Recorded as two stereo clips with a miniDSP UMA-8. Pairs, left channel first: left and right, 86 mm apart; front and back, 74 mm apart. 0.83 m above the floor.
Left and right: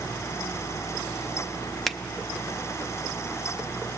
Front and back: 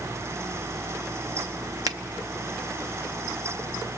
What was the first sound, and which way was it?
A finger snap, 175° left.